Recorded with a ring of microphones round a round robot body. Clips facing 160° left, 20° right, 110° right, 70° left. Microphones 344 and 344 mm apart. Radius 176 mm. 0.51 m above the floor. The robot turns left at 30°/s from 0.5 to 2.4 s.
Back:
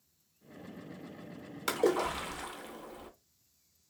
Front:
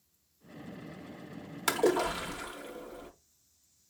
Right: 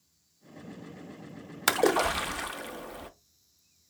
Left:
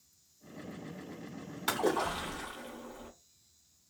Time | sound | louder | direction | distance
1.7 | a splash | front 2 dB, right 6 dB | 100° right | 0.6 m